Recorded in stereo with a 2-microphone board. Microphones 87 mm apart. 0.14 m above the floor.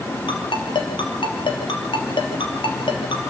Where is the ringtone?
65° left (ahead or behind), 3 m.